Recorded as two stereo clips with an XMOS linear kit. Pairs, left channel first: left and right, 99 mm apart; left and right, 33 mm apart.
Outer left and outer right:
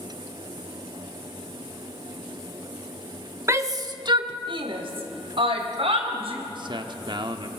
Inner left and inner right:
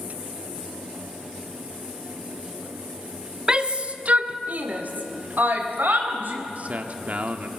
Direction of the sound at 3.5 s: 30° right (ahead or behind).